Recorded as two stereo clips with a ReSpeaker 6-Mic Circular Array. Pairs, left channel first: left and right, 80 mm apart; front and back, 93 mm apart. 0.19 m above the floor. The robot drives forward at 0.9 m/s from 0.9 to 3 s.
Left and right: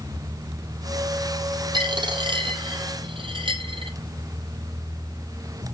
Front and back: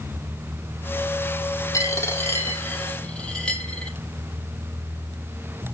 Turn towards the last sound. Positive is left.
turn(degrees=-80)